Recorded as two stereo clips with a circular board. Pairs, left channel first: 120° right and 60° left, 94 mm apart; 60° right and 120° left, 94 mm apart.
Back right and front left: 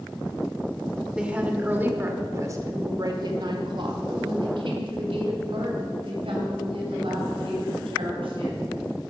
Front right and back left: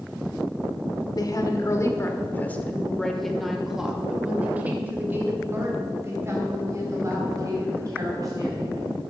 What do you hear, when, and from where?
1.1 s a woman speaking: 20° right, 1.5 m; by 9.0 s 70° left, 4 m